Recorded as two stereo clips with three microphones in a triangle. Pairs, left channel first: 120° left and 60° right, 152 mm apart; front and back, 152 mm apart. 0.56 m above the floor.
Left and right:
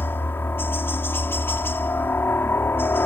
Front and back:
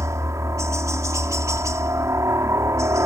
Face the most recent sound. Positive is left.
turn(degrees=165)